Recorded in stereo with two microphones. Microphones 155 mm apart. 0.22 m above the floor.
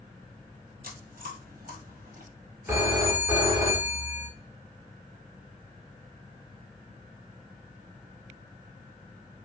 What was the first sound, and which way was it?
Chewing, 85° right.